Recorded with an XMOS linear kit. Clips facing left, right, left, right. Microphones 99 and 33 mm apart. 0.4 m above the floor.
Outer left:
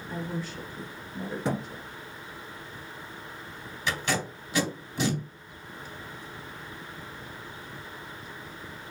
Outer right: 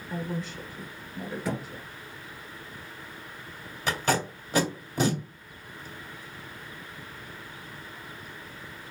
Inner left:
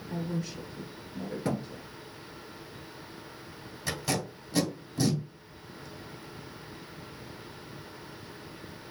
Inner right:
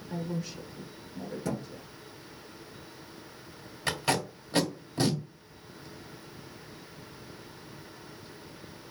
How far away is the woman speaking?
About 0.8 m.